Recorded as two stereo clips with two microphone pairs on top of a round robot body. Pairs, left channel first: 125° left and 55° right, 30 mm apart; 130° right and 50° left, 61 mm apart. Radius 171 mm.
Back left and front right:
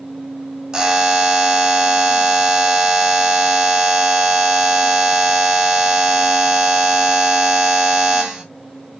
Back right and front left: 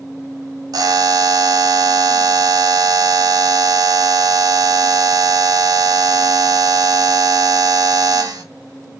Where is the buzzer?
20° left, 2.5 m.